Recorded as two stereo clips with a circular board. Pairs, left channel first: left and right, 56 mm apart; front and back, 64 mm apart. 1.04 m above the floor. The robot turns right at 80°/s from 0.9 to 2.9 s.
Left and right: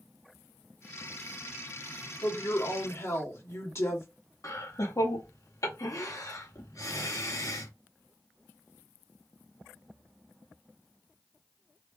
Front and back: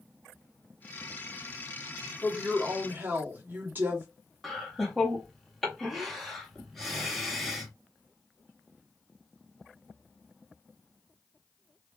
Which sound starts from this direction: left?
Laughter, at 4.4 s.